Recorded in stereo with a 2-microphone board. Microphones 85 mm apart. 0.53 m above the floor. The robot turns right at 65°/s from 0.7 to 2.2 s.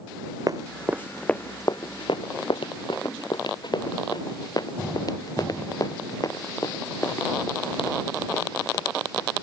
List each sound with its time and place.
0.5 s running footsteps: 45° right (ahead or behind); by 9.4 s 35° left (ahead or behind)